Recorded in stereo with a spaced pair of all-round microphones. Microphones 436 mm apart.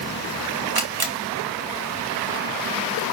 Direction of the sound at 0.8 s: 55° right (ahead or behind).